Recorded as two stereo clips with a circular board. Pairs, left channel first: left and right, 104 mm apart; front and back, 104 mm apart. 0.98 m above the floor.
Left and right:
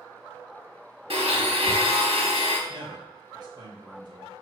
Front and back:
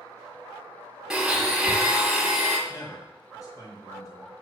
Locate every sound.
1.1 s a blender: 95° right, 1.0 m
2.7 s a man speaking: 50° right, 1.1 m